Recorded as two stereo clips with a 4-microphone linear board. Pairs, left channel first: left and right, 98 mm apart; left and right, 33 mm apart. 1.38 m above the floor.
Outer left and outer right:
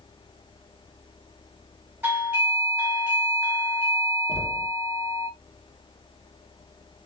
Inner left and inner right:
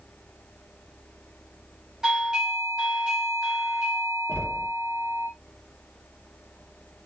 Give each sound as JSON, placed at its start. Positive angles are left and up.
{"t": 2.0, "sound": "a doorbell", "side_deg": -20, "distance_m": 1.4}
{"t": 4.3, "sound": "knocking", "side_deg": 65, "distance_m": 0.8}